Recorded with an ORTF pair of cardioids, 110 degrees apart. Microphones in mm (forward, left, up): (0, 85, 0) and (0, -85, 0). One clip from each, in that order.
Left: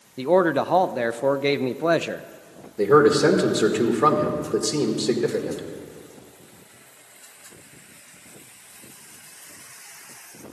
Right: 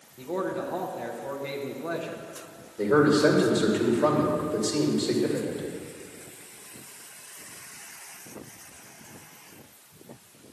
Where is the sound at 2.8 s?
50° left, 2 m.